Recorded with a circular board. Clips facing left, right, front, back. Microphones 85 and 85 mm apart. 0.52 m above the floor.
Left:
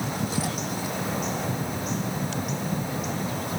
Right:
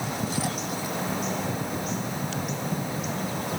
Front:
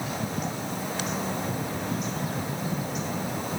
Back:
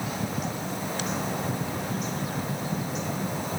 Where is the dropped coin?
I don't hear a dropped coin.